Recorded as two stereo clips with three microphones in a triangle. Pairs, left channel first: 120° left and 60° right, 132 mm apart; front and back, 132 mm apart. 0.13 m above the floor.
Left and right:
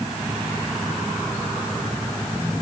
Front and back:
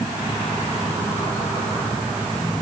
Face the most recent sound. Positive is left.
No sound to turn to.